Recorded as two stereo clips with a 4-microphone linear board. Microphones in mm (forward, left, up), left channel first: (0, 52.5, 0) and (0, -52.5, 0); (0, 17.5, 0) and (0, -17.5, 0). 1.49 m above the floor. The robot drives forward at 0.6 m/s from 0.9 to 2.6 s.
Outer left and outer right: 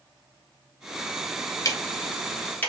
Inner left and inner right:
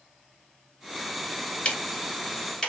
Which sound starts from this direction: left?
Ticking, at 1.6 s.